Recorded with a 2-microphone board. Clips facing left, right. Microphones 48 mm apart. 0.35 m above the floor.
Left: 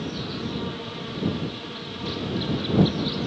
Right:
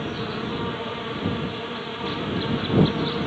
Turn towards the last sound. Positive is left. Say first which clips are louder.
# right 2 dB
turn(degrees=-25)  # may be behind; listen again after turning